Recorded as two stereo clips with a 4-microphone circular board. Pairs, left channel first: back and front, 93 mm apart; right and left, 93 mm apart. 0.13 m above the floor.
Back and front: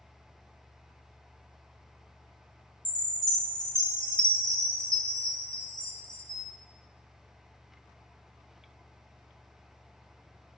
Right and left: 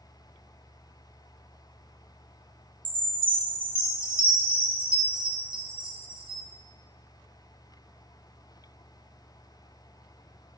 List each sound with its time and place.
2.9 s a chime: 95° left, 1.0 m